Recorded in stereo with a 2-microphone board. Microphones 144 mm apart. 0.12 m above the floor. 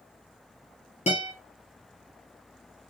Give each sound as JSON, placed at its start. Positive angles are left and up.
{"t": 1.1, "sound": "a guitar", "side_deg": 50, "distance_m": 1.5}